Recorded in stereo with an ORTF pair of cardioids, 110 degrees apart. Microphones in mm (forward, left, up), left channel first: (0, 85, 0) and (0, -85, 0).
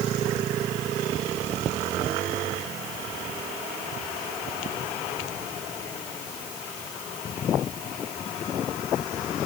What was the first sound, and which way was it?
Only background noise.